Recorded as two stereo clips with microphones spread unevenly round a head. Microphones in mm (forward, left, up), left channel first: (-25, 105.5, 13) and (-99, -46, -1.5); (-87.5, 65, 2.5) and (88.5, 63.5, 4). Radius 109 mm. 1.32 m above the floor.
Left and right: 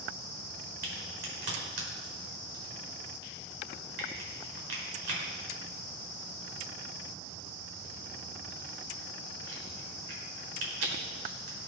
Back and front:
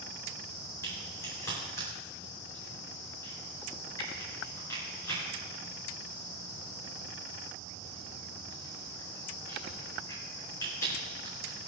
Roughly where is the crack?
Right.